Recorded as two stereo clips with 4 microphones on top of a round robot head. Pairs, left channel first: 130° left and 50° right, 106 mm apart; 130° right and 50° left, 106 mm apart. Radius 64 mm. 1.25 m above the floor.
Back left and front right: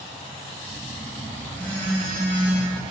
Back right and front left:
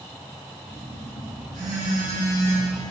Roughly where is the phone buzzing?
Ahead left.